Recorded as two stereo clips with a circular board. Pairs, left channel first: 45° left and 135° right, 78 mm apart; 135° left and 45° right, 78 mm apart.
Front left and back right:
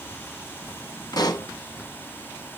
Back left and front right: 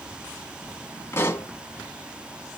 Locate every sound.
1.1 s a pop: 80° left, 1.5 m